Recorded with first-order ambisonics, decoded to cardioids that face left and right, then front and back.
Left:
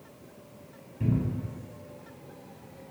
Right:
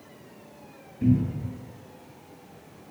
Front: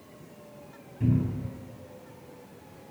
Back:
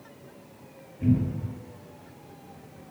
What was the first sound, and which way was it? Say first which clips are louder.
A cupboard door: right 6 dB, back 3 dB; 60° left.